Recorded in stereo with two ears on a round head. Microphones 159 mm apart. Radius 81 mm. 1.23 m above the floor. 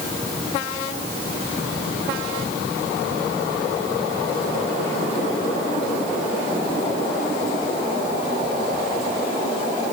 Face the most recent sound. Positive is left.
No sound to turn to.